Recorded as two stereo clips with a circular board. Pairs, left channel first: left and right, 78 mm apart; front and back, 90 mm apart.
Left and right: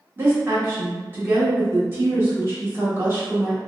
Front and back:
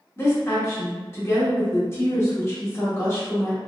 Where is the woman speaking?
45° right, 1.4 m.